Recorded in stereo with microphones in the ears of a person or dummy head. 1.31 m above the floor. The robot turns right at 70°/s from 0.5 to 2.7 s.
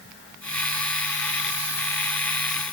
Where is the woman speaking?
No woman speaking in this recording.